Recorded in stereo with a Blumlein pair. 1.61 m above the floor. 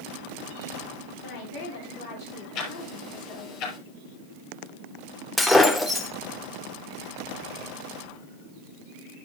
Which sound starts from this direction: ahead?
Breaking glass, at 5.4 s.